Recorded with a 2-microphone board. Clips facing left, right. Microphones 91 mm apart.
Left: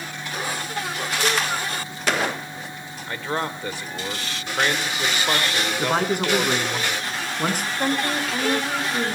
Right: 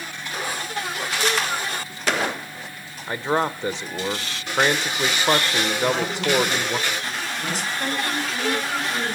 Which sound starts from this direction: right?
A man speaking, at 3.1 s.